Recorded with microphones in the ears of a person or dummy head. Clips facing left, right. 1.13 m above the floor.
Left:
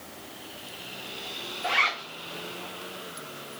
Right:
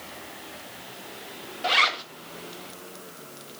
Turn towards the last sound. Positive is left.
turn(degrees=-55)  # may be behind; listen again after turning